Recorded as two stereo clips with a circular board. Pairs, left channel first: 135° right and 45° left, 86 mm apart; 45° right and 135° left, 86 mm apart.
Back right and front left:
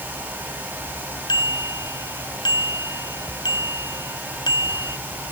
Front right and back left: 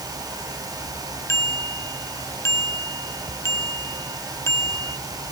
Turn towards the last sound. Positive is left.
turn(degrees=-100)